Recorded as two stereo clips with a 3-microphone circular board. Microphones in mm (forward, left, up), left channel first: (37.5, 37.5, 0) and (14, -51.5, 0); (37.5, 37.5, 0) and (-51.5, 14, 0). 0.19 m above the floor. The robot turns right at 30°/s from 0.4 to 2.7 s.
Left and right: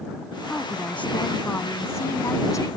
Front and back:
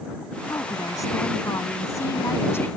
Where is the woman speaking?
5° right; by 2.7 s 60° left.